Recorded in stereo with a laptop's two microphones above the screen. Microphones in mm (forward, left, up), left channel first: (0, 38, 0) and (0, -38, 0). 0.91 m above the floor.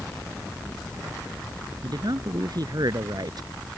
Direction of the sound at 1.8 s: 55° right (ahead or behind).